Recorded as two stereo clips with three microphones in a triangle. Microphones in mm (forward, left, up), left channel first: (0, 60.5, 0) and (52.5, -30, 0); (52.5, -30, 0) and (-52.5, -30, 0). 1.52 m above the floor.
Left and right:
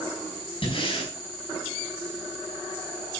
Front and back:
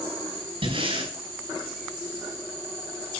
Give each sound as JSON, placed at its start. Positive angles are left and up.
{"t": 0.6, "sound": "breathing", "azimuth_deg": 150, "distance_m": 7.0}